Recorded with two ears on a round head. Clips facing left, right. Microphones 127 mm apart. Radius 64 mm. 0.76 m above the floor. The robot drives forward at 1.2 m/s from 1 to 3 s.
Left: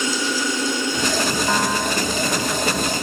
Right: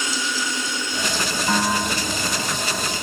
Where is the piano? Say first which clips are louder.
Left 1 dB; 10° right (ahead or behind), 2.5 m; by 3.0 s 5° right (ahead or behind), 4 m.